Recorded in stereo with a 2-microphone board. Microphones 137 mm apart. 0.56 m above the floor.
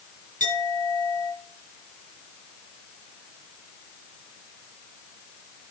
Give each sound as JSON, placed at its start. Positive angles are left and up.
{"t": 0.4, "sound": "a clink", "side_deg": 80, "distance_m": 5.0}